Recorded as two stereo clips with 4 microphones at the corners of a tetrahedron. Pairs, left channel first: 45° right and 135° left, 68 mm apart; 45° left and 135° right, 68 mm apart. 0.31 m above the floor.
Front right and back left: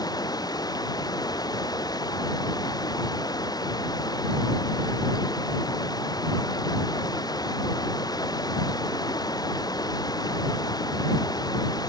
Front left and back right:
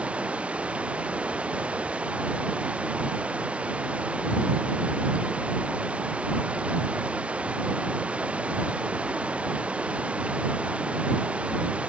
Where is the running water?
60° right.